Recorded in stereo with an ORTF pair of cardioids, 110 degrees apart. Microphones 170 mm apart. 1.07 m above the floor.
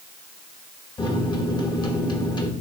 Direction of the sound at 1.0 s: 25° left.